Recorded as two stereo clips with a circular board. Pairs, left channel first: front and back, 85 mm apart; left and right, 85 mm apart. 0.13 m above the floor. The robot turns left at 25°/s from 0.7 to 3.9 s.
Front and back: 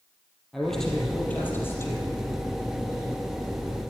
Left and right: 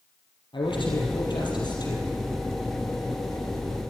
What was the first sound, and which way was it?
A man speaking, 85° left.